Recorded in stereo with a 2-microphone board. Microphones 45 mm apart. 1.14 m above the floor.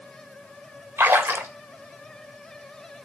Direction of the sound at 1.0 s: 60° right (ahead or behind).